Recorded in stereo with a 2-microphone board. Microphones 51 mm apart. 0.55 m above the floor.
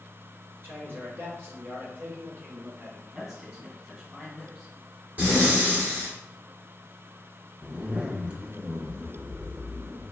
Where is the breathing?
35° right (ahead or behind), 2 m.